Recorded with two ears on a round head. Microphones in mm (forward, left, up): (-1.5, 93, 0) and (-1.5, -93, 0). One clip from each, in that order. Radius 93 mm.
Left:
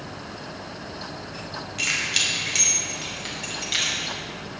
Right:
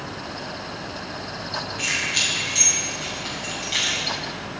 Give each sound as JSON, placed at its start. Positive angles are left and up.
{"t": 1.8, "sound": "keys jangling", "side_deg": 45, "distance_m": 5.5}